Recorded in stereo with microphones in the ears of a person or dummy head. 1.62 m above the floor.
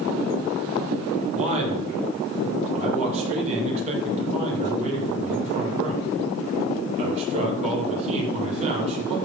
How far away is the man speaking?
About 4.5 m.